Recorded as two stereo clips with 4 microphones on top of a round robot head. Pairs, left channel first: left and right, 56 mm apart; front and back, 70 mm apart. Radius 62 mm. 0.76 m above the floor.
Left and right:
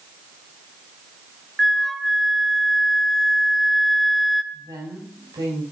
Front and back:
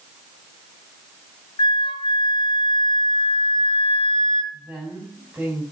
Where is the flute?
Straight ahead, 0.7 m.